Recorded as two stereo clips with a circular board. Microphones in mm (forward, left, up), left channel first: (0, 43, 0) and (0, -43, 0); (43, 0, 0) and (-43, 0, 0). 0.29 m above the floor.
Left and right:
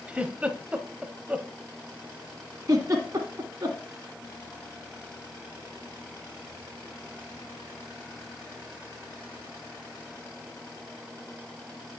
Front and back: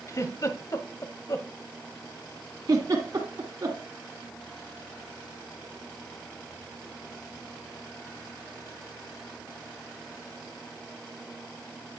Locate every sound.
0.1 s a giggle: 20° right, 0.9 m
2.7 s a giggle: 140° right, 2.0 m